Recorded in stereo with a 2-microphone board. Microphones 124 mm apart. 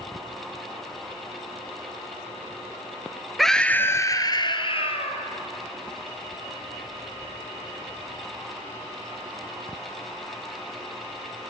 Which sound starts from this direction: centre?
A scream, at 3.4 s.